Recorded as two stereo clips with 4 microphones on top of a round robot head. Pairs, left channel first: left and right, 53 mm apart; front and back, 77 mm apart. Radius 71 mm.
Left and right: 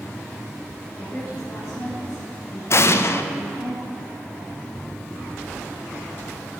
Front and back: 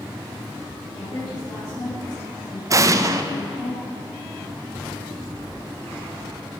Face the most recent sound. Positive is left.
turn(degrees=130)